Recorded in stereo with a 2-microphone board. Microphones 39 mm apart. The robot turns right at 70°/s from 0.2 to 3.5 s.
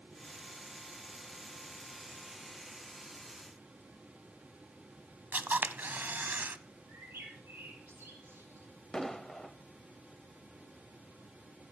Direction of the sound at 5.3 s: 60° right (ahead or behind).